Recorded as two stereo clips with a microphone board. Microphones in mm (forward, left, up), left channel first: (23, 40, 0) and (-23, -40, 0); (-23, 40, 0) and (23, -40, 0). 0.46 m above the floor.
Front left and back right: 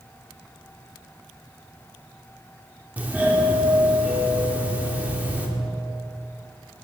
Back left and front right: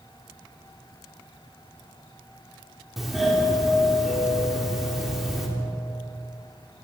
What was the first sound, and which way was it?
A doorbell, 145° right.